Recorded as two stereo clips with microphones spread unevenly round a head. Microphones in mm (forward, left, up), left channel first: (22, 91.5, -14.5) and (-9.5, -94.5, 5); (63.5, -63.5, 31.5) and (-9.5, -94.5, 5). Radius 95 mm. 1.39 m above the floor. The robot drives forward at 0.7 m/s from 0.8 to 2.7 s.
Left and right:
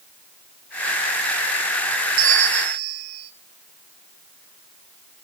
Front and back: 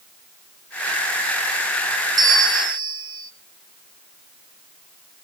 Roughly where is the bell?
Behind right.